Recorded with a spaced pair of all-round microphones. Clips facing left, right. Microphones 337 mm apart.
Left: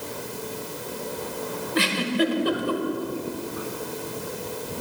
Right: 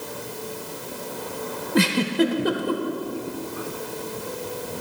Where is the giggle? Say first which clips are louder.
Right 4 dB; 60° right (ahead or behind), 1.2 m.